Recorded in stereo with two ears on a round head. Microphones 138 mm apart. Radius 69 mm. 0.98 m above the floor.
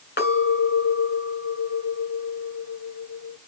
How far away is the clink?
About 2.5 m.